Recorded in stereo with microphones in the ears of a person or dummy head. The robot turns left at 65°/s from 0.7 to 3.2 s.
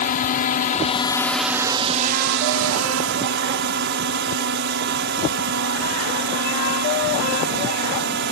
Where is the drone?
50° left; by 8.3 s 115° right.